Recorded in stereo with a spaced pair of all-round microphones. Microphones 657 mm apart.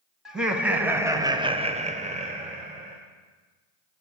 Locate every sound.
0.2 s laughter: centre (ahead or behind), 1.2 m; by 3.0 s 10° right (ahead or behind), 1.1 m